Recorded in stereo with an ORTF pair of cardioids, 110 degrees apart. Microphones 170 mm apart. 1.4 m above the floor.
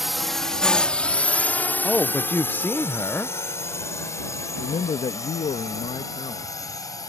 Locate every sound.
0.0 s a drone: straight ahead; by 7.1 s 20° left
1.8 s a man speaking: 10° left
4.6 s a man speaking: 35° left